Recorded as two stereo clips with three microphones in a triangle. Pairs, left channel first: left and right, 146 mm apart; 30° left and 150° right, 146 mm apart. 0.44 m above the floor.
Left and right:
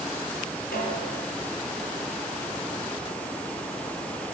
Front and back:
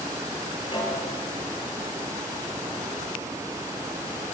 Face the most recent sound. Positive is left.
turn(degrees=85)